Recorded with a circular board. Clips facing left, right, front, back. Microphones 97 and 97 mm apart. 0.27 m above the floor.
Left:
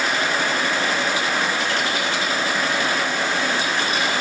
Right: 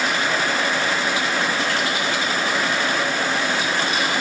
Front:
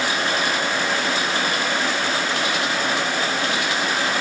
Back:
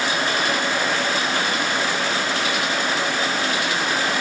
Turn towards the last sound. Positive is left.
No sound to turn to.